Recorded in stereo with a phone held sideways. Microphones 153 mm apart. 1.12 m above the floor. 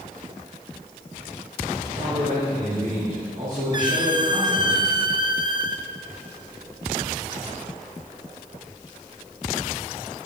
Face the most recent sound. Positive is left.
turn(degrees=-30)  # may be behind; listen again after turning